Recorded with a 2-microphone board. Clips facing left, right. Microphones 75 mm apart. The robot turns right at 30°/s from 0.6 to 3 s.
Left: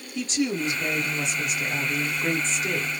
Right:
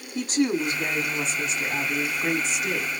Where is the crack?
I don't hear a crack.